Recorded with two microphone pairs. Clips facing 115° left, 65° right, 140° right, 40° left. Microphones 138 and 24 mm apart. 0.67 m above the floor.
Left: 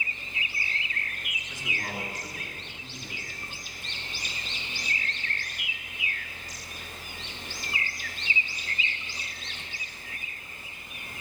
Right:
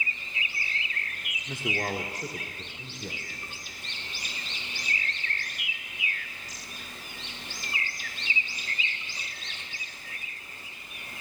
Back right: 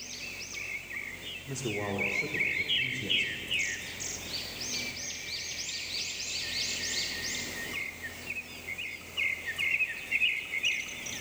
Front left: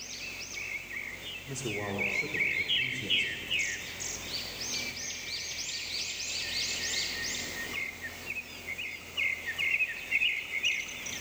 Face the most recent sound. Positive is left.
turn(degrees=-55)